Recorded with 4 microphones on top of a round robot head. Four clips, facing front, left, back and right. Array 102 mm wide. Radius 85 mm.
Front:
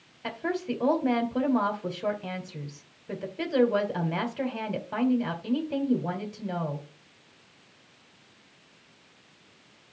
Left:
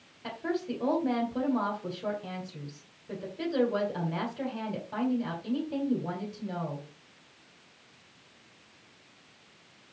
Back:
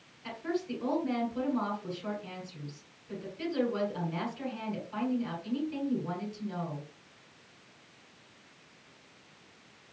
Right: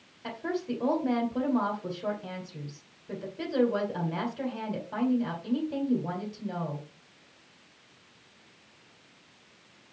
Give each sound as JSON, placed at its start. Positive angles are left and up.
{"t": 0.2, "sound": "a woman speaking", "azimuth_deg": 0, "distance_m": 3.5}